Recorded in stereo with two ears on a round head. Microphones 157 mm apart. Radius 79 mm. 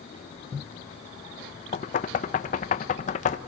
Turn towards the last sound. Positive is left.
turn(degrees=40)  # may be behind; listen again after turning